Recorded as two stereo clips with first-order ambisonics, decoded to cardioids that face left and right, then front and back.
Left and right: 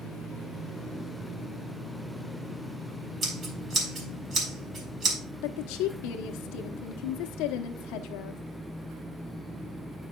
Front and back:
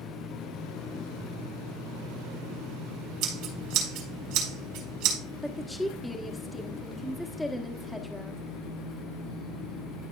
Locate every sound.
3.2 s scissors: 150° right, 4.5 m
5.4 s a woman speaking: 80° left, 1.0 m